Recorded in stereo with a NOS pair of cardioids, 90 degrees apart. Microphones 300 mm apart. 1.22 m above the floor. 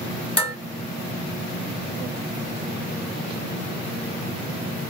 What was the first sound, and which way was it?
Dishes clattering, 20° left.